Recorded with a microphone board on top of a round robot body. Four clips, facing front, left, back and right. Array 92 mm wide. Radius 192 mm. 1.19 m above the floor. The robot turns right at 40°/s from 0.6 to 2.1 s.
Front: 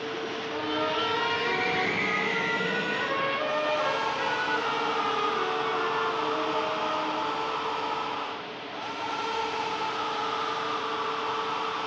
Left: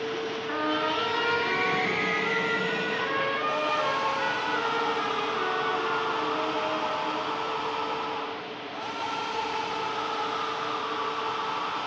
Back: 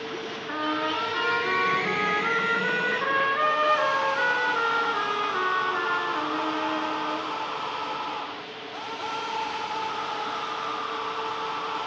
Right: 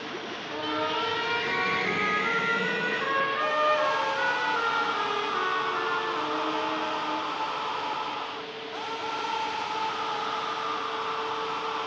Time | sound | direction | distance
0.5 | a trumpet | 135° left | 3.5 m